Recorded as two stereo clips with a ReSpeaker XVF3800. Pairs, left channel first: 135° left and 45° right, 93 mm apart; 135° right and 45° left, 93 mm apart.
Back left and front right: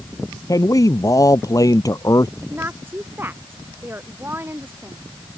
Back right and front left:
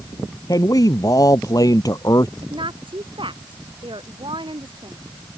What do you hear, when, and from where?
0.5 s a man speaking: straight behind
2.4 s a woman speaking: 20° left